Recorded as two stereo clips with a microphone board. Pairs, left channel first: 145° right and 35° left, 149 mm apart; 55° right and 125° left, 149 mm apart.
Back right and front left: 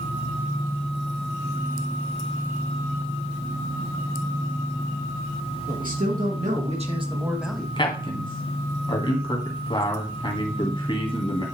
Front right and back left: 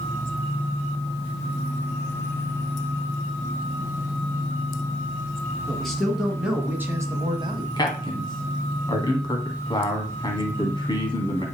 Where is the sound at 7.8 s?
105° right, 1.9 m.